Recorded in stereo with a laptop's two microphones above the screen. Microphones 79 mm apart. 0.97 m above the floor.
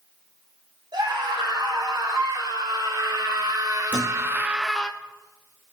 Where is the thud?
20° right (ahead or behind), 2.5 m.